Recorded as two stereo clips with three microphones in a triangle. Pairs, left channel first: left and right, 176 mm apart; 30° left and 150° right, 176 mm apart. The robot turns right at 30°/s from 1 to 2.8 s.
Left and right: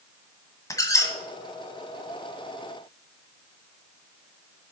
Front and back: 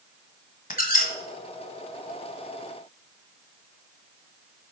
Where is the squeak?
25° left, 1.5 m; by 1.1 s 30° left, 1.5 m.